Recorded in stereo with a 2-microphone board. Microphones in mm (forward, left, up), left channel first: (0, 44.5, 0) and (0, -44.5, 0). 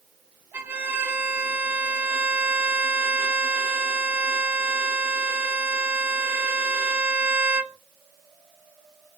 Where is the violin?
20° right (ahead or behind), 0.7 m.